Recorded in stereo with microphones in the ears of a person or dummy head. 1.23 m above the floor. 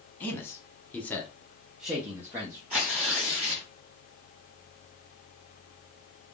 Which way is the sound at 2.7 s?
Centre (ahead or behind).